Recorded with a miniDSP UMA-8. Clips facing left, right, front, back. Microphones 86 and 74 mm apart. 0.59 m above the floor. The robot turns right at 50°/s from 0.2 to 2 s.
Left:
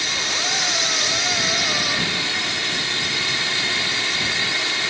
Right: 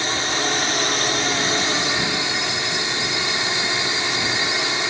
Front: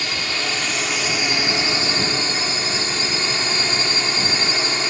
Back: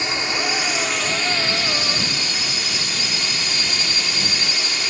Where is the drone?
125° right; by 4.9 s 35° right.